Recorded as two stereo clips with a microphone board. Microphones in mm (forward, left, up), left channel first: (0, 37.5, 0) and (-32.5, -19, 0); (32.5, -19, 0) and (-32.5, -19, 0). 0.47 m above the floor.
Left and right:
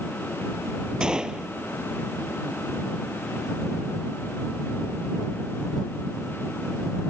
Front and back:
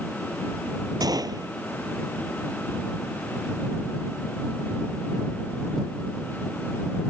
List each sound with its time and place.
1.0 s a gunshot: 160° left